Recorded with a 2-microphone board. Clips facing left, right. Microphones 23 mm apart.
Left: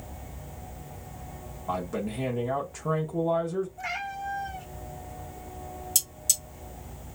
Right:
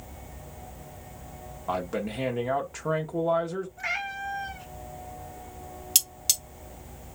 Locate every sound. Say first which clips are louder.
1.7 s a man speaking: right 1 dB; 30° right (ahead or behind), 0.7 m
3.8 s a cat meowing: right 2 dB; 30° right (ahead or behind), 1.2 m
6.0 s cutlery clinking: right 3 dB; 60° right (ahead or behind), 1.2 m